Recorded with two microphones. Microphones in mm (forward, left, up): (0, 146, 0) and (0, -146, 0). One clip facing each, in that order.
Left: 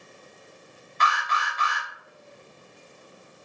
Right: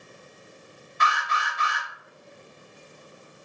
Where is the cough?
No cough in this recording.